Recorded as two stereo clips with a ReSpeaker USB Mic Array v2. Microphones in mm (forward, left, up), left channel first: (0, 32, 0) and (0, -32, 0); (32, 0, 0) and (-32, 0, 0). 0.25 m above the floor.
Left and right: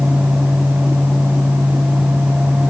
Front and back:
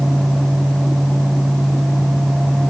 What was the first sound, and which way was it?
Only background noise.